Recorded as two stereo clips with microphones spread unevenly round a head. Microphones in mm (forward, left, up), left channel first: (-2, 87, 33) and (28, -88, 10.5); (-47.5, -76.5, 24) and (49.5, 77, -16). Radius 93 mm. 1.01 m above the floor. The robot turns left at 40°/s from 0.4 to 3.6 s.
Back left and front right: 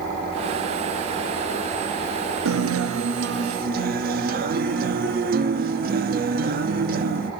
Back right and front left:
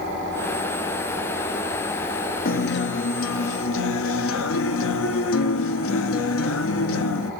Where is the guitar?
80° right, 0.8 m; by 7.3 s 125° right, 0.8 m.